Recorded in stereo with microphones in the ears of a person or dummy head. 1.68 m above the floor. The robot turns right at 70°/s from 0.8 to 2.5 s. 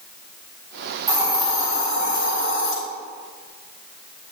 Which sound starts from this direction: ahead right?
A hiss, at 1.1 s.